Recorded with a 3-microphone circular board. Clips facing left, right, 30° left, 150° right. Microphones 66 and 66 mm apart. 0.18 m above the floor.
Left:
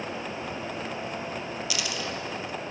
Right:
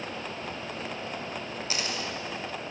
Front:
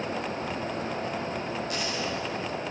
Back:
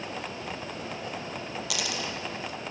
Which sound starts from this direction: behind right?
A dropped coin, at 1.7 s.